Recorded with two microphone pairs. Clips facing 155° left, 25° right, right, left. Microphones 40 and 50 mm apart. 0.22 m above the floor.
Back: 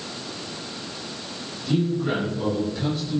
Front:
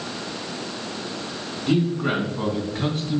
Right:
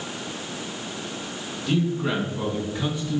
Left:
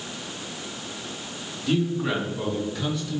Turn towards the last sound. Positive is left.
turn(degrees=-40)